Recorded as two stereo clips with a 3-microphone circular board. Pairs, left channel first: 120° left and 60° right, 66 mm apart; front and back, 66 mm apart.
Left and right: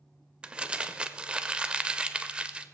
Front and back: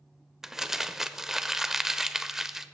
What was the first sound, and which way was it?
Crumpling, 105° right.